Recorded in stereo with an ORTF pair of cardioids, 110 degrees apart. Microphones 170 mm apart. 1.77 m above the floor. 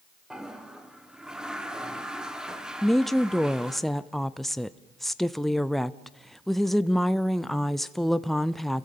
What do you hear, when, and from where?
0.3 s a toilet flushing: 5° right, 1.5 m
2.8 s a woman speaking: straight ahead, 0.6 m